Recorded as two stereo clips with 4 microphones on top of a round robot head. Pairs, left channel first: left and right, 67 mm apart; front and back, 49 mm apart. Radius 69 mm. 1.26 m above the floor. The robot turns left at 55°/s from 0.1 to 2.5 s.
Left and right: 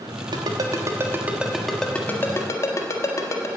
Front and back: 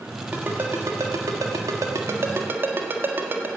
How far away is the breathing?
No breathing in this recording.